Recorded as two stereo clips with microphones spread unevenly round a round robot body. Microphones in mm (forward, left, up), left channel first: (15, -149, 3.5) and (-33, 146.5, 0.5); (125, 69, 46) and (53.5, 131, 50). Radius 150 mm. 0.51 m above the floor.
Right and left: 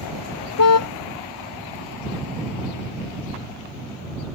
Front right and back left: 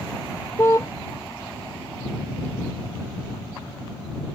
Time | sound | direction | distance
0.6 | a car horn | 120° right | ?